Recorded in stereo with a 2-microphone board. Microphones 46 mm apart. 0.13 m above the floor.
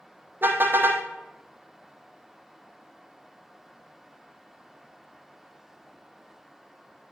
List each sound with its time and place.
0.4 s a car horn: 50° right (ahead or behind), 2.5 m